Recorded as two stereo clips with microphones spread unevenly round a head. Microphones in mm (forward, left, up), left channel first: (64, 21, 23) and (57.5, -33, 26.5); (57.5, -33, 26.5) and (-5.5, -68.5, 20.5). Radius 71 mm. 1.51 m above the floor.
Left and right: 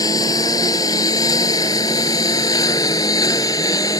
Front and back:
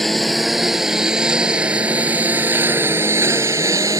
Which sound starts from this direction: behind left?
A lawn mower, at 0.0 s.